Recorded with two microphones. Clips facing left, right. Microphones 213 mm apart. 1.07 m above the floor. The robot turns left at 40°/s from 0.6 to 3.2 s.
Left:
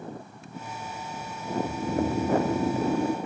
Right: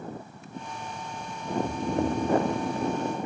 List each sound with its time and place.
1.6 s snoring: 170° right, 0.7 m; by 3.2 s 125° left, 0.7 m